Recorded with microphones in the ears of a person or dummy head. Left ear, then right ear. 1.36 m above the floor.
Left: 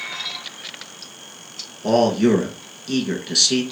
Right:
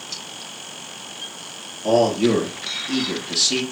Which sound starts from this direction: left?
A man speaking, at 1.8 s.